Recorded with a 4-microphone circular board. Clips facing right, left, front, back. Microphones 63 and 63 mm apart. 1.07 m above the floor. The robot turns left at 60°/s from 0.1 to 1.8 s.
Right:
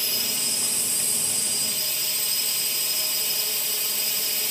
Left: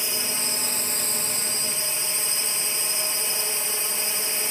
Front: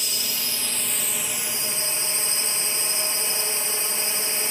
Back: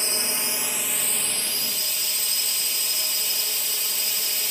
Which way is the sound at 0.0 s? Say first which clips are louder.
Left 2 dB, back 3 dB; 145° left.